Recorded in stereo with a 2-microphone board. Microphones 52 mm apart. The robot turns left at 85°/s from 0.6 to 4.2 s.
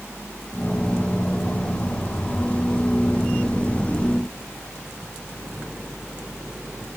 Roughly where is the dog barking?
No dog barking in this recording.